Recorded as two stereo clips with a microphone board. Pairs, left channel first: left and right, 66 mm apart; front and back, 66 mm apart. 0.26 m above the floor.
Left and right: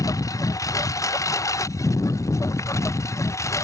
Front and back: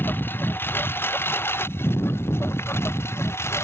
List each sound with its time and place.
0.0 s a lawn mower: 60° left; by 3.6 s 50° left